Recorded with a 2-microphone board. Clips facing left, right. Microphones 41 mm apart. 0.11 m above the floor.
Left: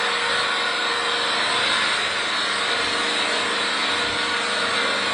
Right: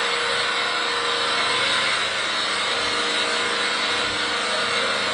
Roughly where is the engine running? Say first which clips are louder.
Left 1 dB; centre.